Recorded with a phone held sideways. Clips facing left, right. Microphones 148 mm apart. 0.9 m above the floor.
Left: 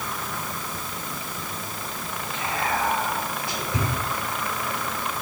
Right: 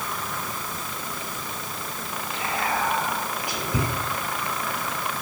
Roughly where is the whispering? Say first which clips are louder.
Even; centre.